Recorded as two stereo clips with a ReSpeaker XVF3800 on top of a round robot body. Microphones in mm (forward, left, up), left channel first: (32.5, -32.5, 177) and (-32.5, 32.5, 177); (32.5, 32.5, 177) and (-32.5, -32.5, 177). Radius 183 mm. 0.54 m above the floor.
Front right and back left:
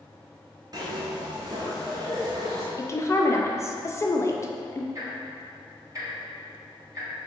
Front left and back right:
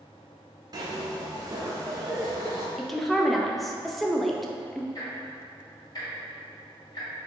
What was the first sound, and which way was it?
A zipper, straight behind.